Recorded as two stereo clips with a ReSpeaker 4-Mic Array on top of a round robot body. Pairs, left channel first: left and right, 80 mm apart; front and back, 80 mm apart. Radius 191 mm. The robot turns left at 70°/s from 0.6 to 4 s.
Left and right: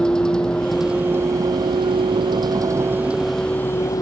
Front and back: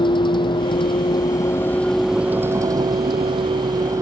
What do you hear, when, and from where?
0.0 s a vehicle: 10° left; by 4.0 s 130° left